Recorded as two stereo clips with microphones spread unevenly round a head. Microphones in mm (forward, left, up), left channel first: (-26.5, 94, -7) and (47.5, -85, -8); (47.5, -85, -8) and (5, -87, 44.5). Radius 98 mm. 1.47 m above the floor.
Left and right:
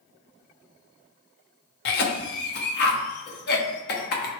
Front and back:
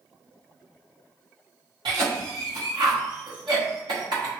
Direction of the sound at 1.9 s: 150° left.